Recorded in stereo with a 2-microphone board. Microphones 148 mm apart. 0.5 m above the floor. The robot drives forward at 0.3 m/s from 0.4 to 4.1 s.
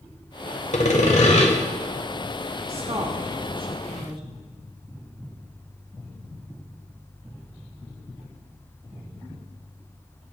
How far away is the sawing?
About 0.9 m.